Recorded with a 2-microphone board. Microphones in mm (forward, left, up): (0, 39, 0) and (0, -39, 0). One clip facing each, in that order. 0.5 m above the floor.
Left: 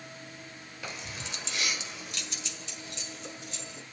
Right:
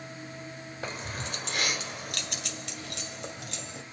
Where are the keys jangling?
40° right (ahead or behind), 1.5 m; by 3.8 s 75° right (ahead or behind), 2.5 m.